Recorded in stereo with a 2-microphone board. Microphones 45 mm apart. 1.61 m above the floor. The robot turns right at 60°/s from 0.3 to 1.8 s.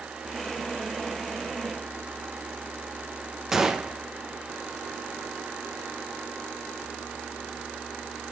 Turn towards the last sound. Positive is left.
turn(degrees=-10)  # may be behind; listen again after turning